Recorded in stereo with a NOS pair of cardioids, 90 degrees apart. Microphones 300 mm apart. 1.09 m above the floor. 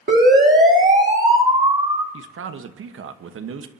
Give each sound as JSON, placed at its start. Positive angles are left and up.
{"t": 0.1, "sound": "a siren", "azimuth_deg": -35, "distance_m": 3.0}
{"t": 2.1, "sound": "a man speaking", "azimuth_deg": -45, "distance_m": 1.2}